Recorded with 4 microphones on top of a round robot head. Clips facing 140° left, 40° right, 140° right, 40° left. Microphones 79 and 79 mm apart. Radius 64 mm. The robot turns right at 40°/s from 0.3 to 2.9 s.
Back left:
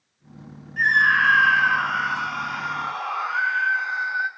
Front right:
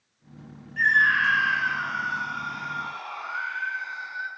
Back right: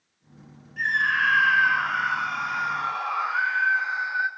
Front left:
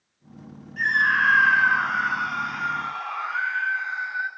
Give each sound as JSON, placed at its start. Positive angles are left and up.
{"t": 0.8, "sound": "a scream", "azimuth_deg": 65, "distance_m": 2.0}